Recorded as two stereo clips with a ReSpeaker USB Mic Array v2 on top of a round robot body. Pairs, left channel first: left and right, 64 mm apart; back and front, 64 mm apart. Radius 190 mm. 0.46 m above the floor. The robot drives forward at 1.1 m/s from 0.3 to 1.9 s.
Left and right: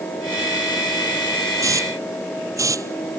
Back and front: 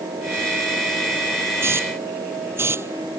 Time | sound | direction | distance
1.6 | a hiss | 50° right | ?